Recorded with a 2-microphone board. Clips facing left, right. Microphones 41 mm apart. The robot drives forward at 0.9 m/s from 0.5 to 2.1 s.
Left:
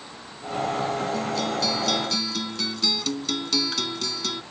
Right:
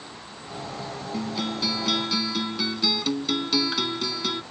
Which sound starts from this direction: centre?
A guitar, at 1.1 s.